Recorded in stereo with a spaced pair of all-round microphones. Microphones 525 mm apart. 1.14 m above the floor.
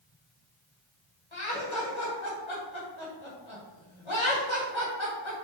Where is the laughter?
60° left (ahead or behind), 2 m.